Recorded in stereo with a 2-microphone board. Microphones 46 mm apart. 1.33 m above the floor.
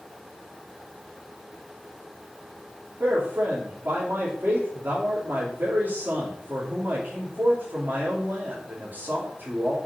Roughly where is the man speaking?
Right.